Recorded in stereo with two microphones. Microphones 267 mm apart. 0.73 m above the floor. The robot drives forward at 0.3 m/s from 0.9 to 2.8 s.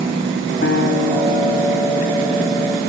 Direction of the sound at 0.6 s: 40° left (ahead or behind).